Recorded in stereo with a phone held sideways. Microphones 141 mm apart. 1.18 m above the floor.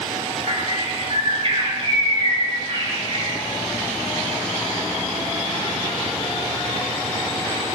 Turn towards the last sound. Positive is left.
turn(degrees=-50)  # may be behind; listen again after turning